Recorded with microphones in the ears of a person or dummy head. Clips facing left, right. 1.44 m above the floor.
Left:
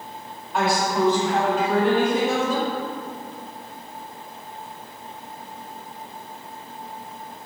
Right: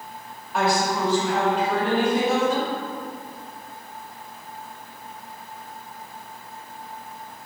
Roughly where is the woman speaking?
Centre.